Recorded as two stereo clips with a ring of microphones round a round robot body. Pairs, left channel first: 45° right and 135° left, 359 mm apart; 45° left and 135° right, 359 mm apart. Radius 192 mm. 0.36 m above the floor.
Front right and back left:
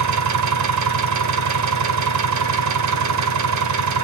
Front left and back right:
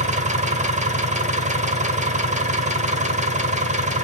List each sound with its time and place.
0.0 s an engine running: 160° left, 1.3 m